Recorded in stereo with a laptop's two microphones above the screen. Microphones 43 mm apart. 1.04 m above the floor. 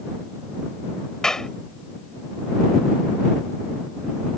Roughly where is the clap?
Centre.